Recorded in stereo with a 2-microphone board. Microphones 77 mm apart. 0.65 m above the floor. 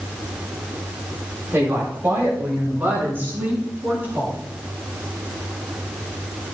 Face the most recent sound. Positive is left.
turn(degrees=-20)  # may be behind; listen again after turning